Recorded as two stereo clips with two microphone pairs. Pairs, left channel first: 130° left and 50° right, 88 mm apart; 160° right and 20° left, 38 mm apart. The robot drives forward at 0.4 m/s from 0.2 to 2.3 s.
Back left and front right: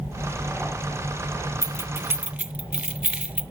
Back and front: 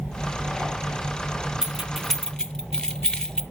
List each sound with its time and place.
1.6 s keys jangling: 45° right, 0.5 m; by 3.4 s 105° right, 0.5 m